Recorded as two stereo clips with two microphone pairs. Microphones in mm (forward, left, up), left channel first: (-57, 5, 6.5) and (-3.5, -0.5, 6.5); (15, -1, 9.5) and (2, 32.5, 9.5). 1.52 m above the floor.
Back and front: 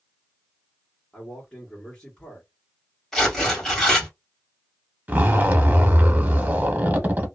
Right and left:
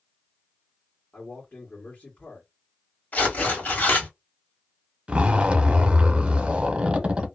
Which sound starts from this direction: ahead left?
A zipper, at 5.1 s.